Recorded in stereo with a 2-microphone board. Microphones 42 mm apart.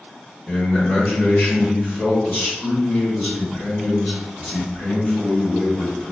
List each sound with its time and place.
0.5 s a man speaking: 55° left (ahead or behind), 1.9 m